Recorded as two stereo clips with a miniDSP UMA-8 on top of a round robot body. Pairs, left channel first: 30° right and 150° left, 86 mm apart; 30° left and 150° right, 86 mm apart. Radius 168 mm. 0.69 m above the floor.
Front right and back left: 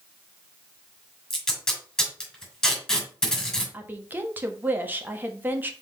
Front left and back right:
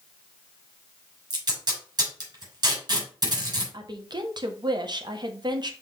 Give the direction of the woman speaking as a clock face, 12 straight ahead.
5 o'clock.